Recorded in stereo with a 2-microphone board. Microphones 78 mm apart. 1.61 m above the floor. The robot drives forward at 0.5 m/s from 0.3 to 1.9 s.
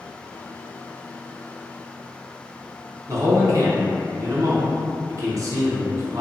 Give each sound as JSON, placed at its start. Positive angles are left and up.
{"t": 3.1, "sound": "a man speaking", "side_deg": -40, "distance_m": 0.7}